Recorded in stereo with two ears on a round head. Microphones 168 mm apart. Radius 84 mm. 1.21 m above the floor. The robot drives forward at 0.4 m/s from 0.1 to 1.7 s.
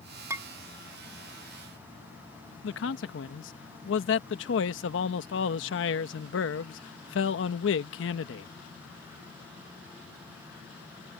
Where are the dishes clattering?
15° right (ahead or behind).